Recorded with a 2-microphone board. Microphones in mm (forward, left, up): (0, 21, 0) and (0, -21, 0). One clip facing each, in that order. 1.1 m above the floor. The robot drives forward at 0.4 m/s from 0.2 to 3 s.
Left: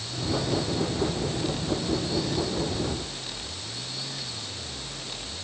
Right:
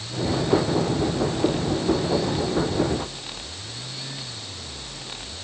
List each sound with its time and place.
Only background noise.